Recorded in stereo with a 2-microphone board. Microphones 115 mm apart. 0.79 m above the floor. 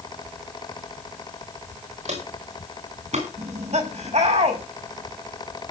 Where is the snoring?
No snoring in this recording.